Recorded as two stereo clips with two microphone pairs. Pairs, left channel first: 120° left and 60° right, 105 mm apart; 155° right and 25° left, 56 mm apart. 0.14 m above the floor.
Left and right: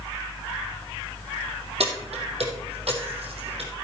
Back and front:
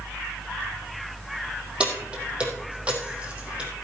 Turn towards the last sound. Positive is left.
turn(degrees=-45)